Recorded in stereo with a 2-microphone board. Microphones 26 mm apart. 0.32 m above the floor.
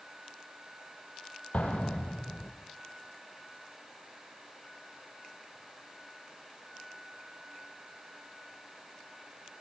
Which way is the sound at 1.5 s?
65° left (ahead or behind).